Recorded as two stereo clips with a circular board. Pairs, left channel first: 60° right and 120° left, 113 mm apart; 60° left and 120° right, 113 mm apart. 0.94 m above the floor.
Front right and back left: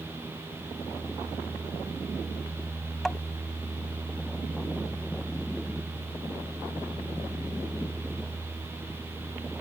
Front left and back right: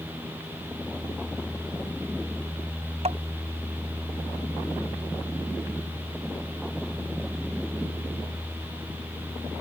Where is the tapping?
145° right.